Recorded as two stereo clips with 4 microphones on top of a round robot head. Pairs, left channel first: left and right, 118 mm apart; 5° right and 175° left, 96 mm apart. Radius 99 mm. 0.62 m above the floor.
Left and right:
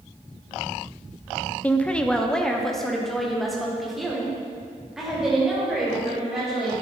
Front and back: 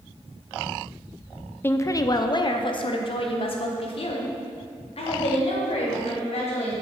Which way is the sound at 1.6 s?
30° left.